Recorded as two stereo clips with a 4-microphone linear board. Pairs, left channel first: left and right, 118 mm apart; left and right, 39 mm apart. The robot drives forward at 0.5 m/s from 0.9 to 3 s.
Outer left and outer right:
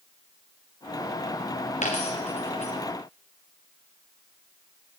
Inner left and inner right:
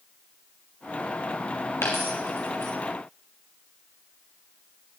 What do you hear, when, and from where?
1.8 s a dropped coin: 80° left, 1.9 m; by 2.7 s 65° left (ahead or behind), 2 m